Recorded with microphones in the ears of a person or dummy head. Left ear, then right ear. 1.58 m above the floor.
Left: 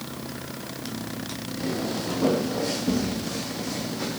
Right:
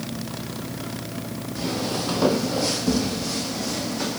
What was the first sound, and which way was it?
Footsteps, 50° right (ahead or behind).